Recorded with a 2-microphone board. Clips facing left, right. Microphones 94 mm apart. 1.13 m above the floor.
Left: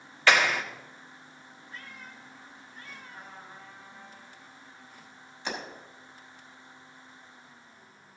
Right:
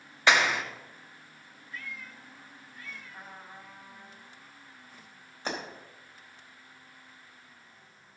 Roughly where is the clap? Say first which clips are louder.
Left 1 dB; centre.